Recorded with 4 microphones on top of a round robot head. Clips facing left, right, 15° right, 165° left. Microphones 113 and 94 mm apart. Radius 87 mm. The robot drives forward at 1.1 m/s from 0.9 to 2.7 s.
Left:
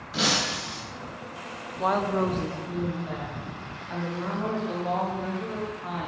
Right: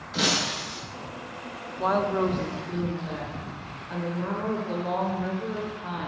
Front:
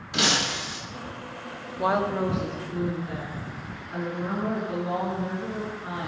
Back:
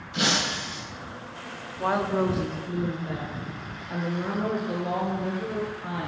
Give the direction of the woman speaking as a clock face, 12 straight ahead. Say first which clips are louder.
Right 1 dB, even; 12 o'clock.